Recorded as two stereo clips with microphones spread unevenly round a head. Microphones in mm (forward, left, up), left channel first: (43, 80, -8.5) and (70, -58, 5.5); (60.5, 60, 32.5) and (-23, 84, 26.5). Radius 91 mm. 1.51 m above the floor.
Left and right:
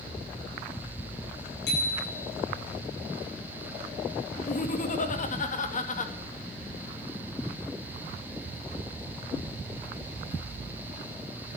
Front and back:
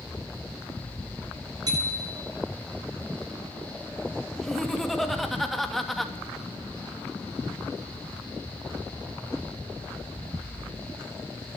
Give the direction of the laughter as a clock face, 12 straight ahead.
10 o'clock.